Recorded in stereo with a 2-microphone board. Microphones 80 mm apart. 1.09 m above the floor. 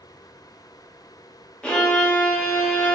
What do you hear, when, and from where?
1.6 s a violin: 10° left (ahead or behind), 0.6 m